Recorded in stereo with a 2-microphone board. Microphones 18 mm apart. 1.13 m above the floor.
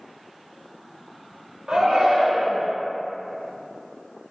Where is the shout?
75° right (ahead or behind), 0.9 m; by 2.7 s 30° right (ahead or behind), 1.2 m.